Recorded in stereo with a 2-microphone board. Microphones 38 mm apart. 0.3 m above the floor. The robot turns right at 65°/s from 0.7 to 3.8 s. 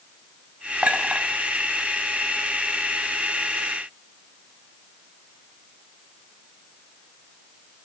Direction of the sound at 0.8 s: 45° right (ahead or behind).